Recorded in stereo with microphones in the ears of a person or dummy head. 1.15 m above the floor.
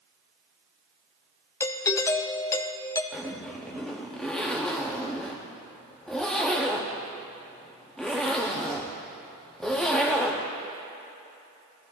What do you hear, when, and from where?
1.6 s a doorbell: 15° left (ahead or behind), 0.5 m
3.1 s a zipper: 5° left (ahead or behind), 0.7 m